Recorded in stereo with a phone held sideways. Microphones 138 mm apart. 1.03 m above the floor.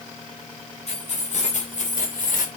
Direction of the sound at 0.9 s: 50° left (ahead or behind).